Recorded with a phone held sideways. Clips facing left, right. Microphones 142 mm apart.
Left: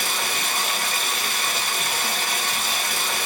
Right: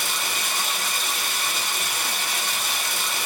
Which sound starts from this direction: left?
Running water, at 0.0 s.